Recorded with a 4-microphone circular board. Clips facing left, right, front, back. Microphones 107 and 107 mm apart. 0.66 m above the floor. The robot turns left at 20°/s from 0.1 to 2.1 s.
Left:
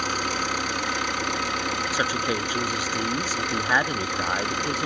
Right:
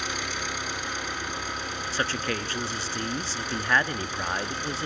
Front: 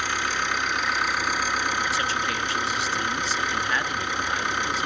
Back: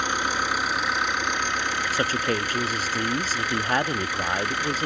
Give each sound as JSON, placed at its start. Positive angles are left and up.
{"t": 0.0, "sound": "an engine running", "azimuth_deg": 110, "distance_m": 3.0}
{"t": 1.9, "sound": "a man speaking", "azimuth_deg": 165, "distance_m": 0.7}